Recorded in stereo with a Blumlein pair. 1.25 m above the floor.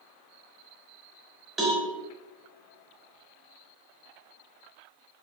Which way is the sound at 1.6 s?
15° right.